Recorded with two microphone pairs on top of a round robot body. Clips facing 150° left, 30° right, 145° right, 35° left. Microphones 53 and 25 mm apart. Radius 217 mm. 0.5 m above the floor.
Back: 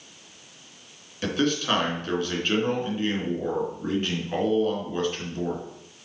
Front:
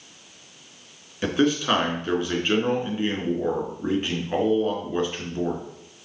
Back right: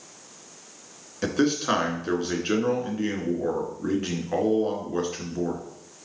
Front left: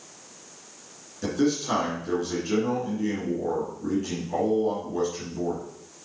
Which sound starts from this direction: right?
A man speaking, at 1.2 s.